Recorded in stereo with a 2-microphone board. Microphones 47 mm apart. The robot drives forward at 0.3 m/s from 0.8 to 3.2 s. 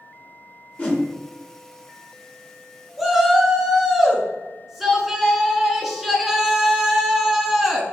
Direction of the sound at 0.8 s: 25° left (ahead or behind).